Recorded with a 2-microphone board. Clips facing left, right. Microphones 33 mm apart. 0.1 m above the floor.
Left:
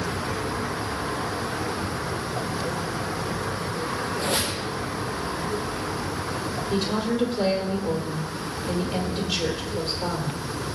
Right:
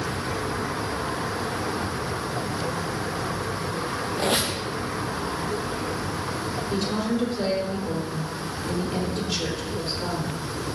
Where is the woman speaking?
20° left (ahead or behind), 3 m.